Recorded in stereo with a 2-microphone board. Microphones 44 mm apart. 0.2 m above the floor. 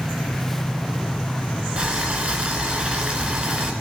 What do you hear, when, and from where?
1.8 s boiling: 20° right (ahead or behind), 1.3 m